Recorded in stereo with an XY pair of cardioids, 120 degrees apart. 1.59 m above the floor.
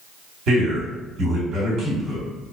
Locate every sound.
0.5 s a man speaking: 60° right, 1.5 m